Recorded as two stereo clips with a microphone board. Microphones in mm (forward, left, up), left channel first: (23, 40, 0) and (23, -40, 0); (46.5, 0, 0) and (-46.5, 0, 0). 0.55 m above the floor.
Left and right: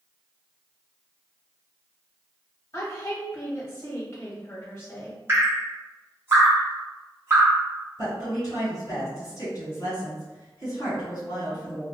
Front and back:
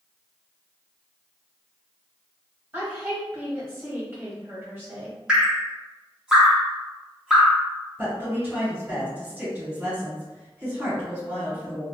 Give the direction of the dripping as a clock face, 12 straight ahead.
4 o'clock.